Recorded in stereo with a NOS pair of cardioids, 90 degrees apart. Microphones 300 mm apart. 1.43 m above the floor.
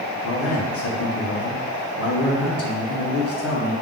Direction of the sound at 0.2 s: 50° left.